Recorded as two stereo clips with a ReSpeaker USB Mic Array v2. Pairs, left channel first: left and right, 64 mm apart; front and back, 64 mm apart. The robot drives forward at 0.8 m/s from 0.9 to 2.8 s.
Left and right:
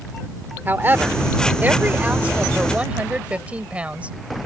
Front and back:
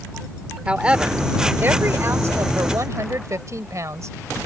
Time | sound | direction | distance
0.7 | a woman speaking | 120° right | ?